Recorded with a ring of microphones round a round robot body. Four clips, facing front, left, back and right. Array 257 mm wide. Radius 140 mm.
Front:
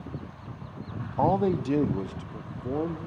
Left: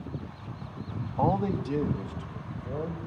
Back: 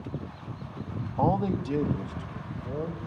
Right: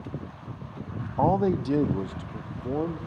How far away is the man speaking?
About 0.7 m.